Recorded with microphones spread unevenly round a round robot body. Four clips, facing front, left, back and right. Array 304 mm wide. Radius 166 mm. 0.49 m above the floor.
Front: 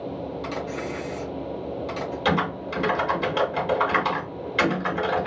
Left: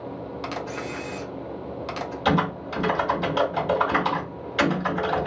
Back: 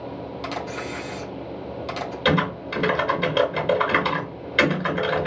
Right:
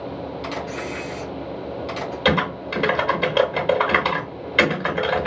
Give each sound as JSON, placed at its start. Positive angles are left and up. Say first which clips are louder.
{"t": 0.4, "sound": "a camera shutter", "louder": "right 1 dB, back 2 dB", "azimuth_deg": 155, "distance_m": 0.9}
{"t": 2.2, "sound": "typing on a keyboard", "louder": "right 2 dB, back 3 dB", "azimuth_deg": -110, "distance_m": 1.5}